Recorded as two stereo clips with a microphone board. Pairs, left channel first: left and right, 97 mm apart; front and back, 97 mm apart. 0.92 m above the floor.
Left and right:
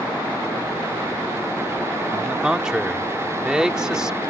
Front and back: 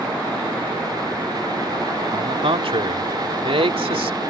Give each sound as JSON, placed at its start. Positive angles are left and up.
{"t": 2.1, "sound": "a man speaking", "azimuth_deg": -175}